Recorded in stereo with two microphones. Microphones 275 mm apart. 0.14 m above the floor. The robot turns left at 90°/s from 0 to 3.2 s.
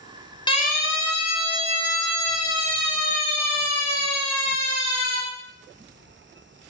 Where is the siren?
15° left (ahead or behind), 4.5 m; by 5.2 s 65° right (ahead or behind), 8 m.